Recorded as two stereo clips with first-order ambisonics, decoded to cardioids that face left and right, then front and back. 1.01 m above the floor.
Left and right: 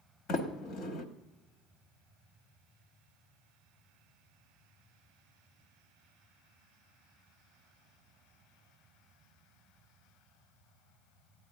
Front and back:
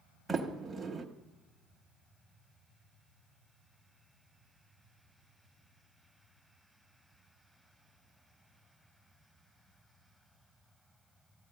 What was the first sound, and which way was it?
A sliding door, 95° left.